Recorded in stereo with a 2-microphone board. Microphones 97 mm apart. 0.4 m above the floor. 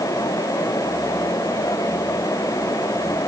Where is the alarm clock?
I don't hear an alarm clock.